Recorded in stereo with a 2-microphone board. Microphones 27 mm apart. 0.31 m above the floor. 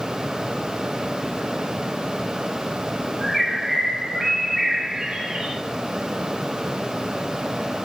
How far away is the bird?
About 4.5 m.